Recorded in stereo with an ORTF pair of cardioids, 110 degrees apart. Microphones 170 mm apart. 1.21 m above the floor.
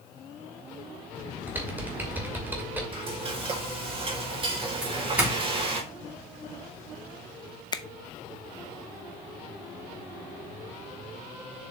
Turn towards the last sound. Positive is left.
turn(degrees=25)